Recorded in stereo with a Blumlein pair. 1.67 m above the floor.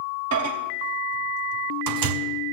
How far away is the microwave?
About 1.2 m.